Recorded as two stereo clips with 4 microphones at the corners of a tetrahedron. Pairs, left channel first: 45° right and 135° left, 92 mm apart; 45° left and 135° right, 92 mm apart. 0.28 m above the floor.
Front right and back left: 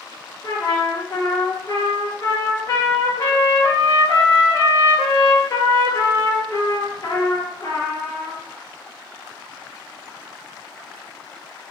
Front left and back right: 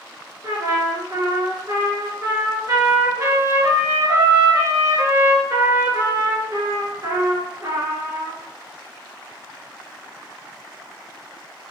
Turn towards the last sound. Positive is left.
turn(degrees=-90)